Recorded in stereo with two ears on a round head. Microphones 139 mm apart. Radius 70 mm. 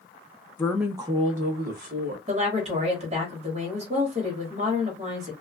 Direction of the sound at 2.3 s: 40° right (ahead or behind).